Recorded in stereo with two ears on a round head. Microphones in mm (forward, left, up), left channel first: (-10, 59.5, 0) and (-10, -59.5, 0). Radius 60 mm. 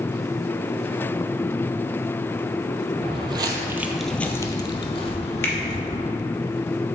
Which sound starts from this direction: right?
Footsteps, at 3.0 s.